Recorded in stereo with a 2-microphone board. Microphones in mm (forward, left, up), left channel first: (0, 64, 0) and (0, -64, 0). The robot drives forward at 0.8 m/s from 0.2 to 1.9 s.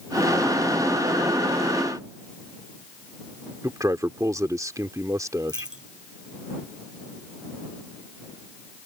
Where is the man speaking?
25° right (ahead or behind).